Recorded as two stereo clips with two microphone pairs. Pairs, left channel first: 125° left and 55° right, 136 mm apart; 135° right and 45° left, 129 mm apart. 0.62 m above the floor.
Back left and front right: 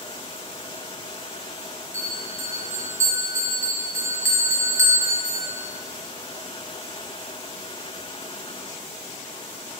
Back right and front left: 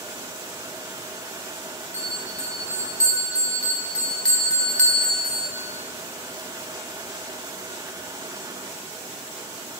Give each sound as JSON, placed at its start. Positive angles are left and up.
{"t": 1.9, "sound": "a bell", "azimuth_deg": -70, "distance_m": 1.0}